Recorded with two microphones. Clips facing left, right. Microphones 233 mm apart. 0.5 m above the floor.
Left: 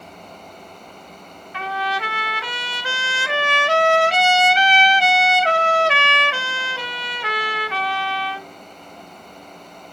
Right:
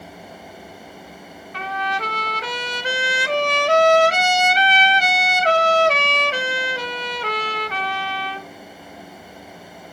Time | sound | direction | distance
1.5 | a trumpet | 40° right (ahead or behind) | 1.0 m